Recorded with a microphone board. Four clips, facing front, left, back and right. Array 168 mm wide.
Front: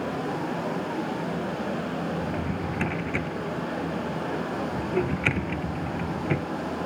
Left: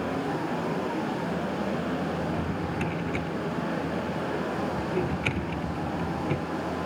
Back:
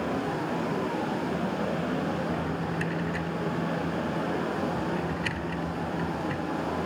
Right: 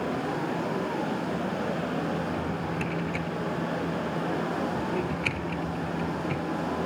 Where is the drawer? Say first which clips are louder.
Left 1 dB, even; 10° left.